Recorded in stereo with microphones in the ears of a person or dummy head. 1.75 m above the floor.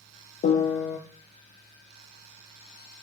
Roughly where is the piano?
Left.